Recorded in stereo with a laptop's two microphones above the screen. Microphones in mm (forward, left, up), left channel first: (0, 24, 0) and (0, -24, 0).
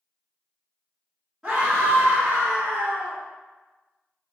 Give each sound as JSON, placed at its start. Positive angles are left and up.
{"t": 1.4, "sound": "a scream", "side_deg": -15, "distance_m": 0.8}